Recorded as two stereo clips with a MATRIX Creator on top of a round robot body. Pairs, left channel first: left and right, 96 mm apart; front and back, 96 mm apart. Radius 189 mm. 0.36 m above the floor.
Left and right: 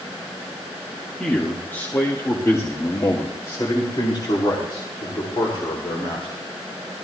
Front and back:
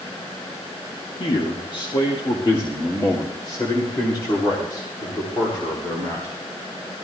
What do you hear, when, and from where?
1.2 s a man speaking: 10° left, 1.7 m; by 6.3 s 55° left, 3.5 m